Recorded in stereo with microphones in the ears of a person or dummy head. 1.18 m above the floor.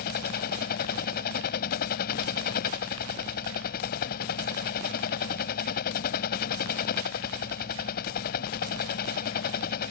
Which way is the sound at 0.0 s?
55° left (ahead or behind).